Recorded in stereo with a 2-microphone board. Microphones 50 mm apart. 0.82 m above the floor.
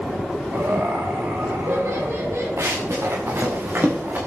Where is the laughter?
70° right (ahead or behind), 3 m.